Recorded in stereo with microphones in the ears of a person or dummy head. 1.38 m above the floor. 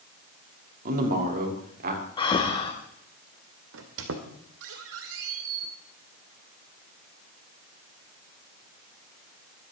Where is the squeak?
65° right (ahead or behind), 2 m.